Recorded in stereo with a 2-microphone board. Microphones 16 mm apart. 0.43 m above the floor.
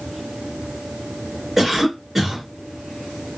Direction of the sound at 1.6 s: 5° right (ahead or behind).